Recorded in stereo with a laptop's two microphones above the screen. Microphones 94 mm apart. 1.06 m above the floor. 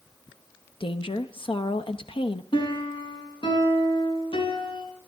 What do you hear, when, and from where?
0.8 s a woman speaking: 65° left (ahead or behind), 0.9 m
2.5 s a piano: 65° left (ahead or behind), 4 m